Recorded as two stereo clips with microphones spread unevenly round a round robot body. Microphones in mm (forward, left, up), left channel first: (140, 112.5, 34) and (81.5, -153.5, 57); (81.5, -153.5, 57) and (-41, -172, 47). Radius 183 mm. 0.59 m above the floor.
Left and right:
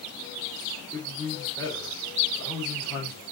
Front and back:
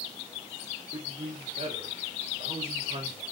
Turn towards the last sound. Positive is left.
turn(degrees=155)